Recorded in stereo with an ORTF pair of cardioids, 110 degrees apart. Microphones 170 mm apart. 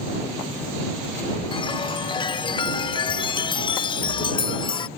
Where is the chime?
30° left.